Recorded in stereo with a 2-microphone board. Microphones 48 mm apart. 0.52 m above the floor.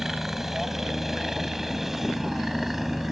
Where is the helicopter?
5° right (ahead or behind).